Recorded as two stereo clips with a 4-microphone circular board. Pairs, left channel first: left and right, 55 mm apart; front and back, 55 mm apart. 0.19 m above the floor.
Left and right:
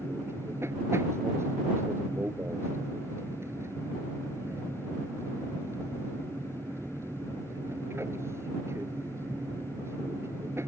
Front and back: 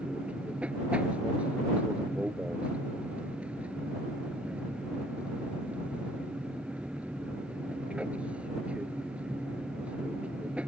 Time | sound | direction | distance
0.0 | an aircraft | 115° right | ?